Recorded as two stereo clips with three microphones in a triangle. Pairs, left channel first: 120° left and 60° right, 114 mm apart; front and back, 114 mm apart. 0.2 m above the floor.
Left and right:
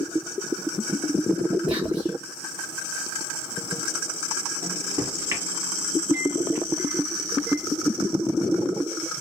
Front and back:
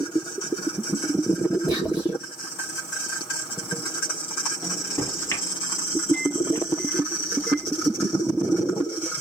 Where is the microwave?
30° right, 1.2 m.